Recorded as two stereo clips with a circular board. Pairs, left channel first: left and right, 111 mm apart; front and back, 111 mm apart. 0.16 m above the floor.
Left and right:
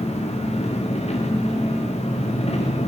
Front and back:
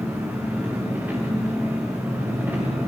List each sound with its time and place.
0.0 s an engine running: 105° left, 8 m